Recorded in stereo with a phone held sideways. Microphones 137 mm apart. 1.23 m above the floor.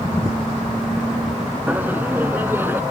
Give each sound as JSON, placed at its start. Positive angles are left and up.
{"t": 1.7, "sound": "laughter", "side_deg": -10}